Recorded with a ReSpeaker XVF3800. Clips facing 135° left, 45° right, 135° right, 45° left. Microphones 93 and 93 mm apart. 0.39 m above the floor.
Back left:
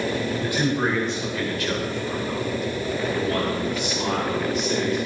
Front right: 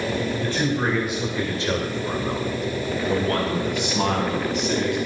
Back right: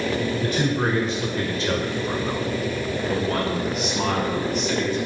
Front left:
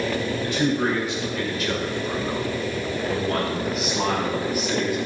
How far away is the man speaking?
About 1.6 m.